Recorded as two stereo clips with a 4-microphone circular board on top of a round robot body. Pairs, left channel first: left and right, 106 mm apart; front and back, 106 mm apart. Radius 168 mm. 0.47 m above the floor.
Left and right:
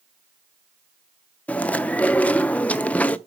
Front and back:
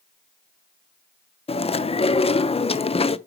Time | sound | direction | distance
1.5 | chewing | 15° left | 0.7 m